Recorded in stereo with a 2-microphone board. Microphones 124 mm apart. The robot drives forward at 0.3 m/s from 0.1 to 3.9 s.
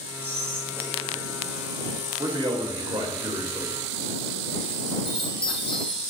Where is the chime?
45° left (ahead or behind), 4 m.